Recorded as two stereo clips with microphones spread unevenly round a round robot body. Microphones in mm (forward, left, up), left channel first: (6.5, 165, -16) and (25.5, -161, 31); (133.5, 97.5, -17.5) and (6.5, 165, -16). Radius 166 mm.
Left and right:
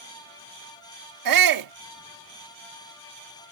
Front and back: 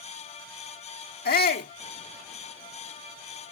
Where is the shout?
60° right.